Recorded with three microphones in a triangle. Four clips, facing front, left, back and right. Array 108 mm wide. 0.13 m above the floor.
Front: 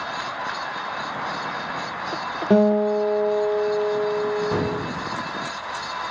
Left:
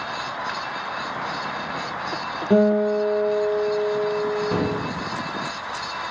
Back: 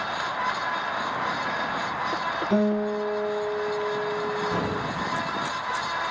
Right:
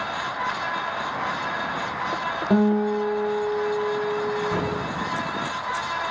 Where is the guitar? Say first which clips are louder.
Left 3 dB, front 8 dB; 5° right, 3 m.